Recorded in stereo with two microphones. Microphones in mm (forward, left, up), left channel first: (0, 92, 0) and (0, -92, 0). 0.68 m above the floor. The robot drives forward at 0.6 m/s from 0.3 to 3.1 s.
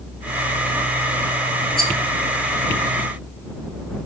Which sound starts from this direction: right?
A rattle, at 1.8 s.